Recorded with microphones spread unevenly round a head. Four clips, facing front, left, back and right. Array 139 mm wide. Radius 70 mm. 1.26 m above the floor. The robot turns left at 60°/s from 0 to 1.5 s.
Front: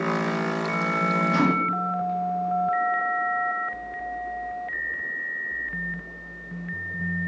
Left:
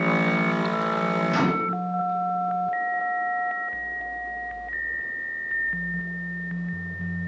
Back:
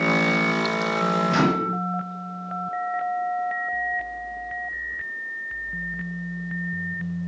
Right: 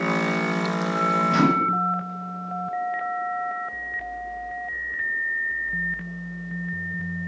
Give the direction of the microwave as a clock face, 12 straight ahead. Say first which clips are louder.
Right 3 dB, back 1 dB; 6 o'clock.